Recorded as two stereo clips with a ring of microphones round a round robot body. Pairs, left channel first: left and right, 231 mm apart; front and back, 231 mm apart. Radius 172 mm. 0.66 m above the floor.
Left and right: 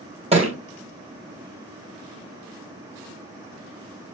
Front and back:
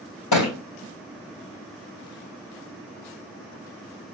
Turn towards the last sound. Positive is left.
turn(degrees=-25)